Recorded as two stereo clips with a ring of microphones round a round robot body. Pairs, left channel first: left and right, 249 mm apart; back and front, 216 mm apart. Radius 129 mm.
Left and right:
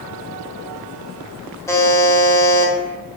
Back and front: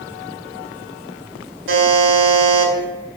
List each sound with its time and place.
1.7 s a buzzer: 15° left, 1.5 m